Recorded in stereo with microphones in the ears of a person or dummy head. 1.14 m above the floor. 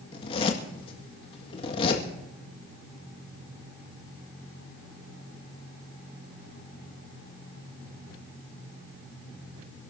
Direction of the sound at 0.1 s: 30° left (ahead or behind).